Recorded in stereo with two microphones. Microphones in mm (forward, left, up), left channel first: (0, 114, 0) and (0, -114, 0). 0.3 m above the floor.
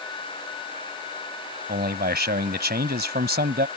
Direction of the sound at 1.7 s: 45° right (ahead or behind).